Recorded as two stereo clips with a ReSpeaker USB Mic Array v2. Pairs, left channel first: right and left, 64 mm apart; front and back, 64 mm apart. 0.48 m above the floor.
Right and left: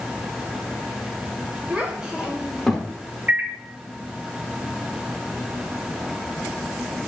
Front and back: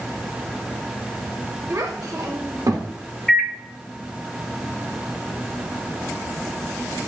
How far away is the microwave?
About 0.6 m.